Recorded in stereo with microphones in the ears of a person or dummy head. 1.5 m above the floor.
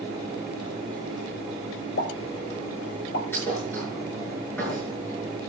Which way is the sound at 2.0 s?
60° left (ahead or behind).